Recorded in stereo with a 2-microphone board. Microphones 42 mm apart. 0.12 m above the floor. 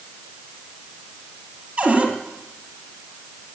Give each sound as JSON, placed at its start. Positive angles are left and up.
{"t": 1.8, "sound": "a cupboard door", "side_deg": -20, "distance_m": 2.5}